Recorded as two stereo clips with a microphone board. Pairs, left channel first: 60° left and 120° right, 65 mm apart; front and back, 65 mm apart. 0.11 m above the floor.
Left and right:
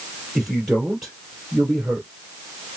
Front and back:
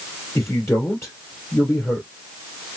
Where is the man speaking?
30° right, 2.5 m.